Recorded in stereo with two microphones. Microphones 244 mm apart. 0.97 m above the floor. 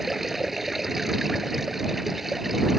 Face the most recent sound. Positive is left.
turn(degrees=0)  # may be behind; listen again after turning